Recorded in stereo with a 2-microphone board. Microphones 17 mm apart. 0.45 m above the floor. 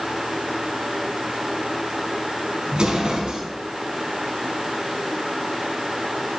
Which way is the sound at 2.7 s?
60° right (ahead or behind).